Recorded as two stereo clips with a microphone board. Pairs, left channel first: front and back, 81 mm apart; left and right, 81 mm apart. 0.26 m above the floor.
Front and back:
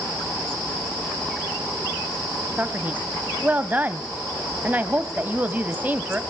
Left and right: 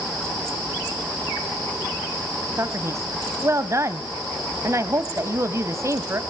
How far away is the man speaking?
About 1.2 m.